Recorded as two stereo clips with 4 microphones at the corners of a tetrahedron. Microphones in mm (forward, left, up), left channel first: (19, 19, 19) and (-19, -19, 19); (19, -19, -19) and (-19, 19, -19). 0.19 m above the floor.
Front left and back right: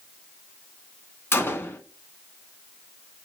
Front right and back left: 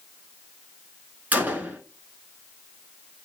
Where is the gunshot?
85° left, 0.6 m.